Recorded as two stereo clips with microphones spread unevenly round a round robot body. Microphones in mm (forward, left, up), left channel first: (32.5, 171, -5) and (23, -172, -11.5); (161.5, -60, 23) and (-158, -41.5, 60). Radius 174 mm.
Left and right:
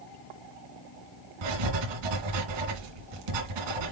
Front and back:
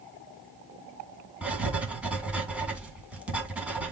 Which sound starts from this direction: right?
Writing, at 1.4 s.